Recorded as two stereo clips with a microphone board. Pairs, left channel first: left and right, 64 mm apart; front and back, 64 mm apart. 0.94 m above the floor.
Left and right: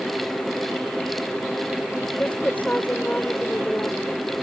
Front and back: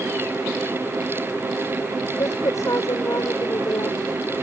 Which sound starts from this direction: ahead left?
A woman speaking, at 2.2 s.